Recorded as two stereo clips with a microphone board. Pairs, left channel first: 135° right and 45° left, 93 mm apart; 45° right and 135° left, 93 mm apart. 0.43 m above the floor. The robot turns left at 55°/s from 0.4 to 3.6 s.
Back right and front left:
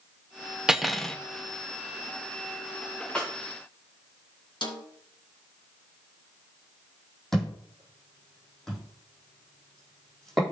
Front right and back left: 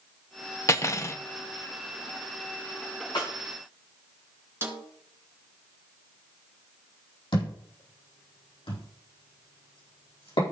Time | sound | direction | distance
0.7 | cutlery clinking | 35° right | 0.6 m
3.1 | a snare drum | 55° right | 3.5 m
4.6 | a snare drum | 165° right | 1.8 m
7.3 | a thud | 50° right | 4.5 m